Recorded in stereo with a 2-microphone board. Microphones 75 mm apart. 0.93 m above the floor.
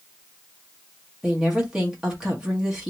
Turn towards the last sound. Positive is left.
turn(degrees=-10)  # may be behind; listen again after turning